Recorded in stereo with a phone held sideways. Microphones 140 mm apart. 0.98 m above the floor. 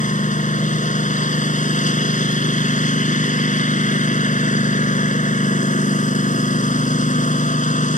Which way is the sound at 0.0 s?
60° left (ahead or behind).